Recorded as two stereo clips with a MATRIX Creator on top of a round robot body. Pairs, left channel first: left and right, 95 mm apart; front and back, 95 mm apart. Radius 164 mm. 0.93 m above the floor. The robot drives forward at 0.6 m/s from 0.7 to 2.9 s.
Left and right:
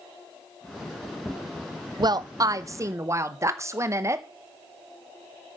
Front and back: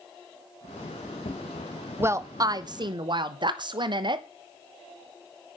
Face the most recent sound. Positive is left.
turn(degrees=-150)